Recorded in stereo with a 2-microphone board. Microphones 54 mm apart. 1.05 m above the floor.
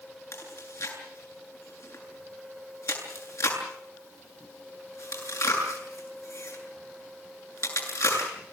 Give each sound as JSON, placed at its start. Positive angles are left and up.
{"t": 0.3, "sound": "chewing", "side_deg": 70, "distance_m": 8.5}